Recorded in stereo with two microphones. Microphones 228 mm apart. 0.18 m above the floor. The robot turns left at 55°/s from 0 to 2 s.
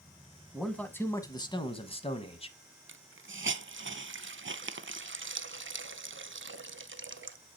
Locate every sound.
0.5 s a man speaking: centre (ahead or behind), 1.1 m; by 2.5 s 25° left (ahead or behind), 1.1 m
2.9 s a hiss: 60° right (ahead or behind), 0.5 m